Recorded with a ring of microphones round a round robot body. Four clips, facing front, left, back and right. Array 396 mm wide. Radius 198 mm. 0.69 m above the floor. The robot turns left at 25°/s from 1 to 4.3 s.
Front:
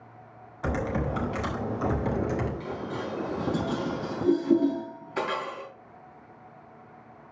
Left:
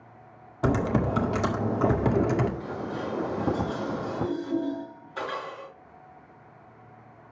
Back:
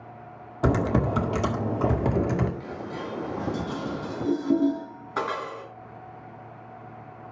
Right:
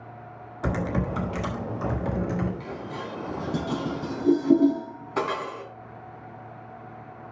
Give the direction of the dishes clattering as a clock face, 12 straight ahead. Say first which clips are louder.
Left 2 dB, front 1 dB; 2 o'clock.